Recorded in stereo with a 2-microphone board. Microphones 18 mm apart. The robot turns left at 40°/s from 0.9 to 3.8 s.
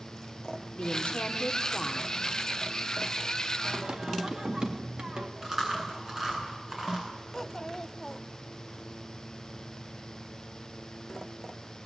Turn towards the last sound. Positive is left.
turn(degrees=25)  # may be behind; listen again after turning